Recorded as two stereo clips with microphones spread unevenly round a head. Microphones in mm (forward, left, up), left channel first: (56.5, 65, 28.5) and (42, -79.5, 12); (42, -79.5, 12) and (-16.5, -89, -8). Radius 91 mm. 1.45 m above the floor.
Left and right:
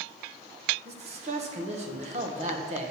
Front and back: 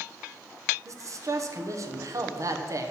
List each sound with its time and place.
0.8 s a man speaking: 145° right, 1.0 m